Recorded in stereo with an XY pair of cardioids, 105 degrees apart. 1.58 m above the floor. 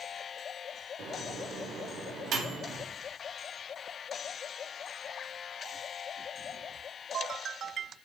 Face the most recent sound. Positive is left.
turn(degrees=-65)